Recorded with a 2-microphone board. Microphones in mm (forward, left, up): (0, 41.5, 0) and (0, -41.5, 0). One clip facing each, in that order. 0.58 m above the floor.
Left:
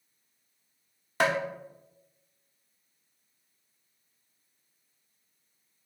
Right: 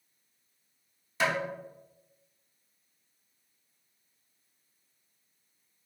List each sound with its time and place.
1.2 s tapping: 55° left (ahead or behind), 0.8 m